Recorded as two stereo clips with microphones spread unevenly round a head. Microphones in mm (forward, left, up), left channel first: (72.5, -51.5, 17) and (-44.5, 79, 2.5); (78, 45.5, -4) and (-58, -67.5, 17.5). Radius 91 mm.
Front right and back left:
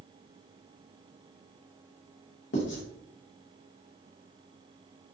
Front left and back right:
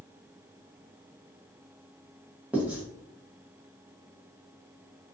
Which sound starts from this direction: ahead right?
Writing, at 2.5 s.